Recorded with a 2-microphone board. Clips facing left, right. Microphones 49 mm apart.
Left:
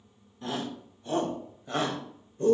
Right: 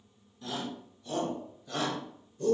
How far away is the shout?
About 3 m.